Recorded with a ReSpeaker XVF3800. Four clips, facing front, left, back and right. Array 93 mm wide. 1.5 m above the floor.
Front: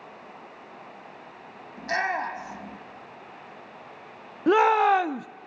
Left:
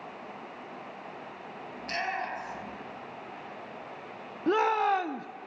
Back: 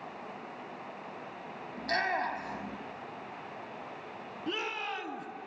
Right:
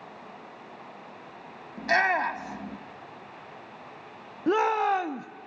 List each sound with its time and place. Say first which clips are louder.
1.8 s a shout: right 10 dB, front 4 dB; 75° right, 3.5 m
4.5 s a shout: right 1 dB, front 18 dB; 5° right, 0.7 m